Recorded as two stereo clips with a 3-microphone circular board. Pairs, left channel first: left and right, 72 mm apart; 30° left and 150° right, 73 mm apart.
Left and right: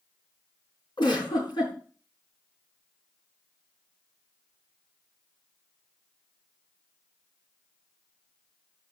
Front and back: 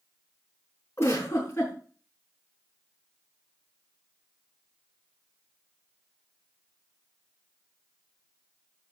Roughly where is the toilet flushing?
I don't hear a toilet flushing.